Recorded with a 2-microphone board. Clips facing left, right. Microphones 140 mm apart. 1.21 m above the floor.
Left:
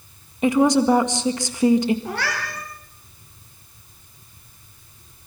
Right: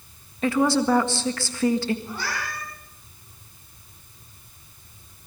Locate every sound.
0.4 s a woman speaking: 15° left (ahead or behind), 1.7 m
2.0 s a cat meowing: 75° left (ahead or behind), 5 m